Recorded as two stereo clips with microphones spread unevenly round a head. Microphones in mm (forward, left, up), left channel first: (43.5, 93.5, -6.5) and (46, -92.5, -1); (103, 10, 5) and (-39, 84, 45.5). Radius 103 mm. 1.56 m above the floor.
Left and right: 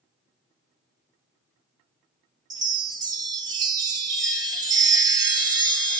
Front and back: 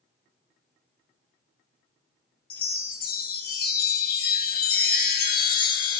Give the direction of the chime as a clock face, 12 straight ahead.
1 o'clock.